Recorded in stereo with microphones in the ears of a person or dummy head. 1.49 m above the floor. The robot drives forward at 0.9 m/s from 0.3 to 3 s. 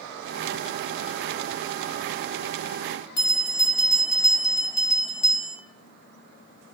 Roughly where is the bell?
Left.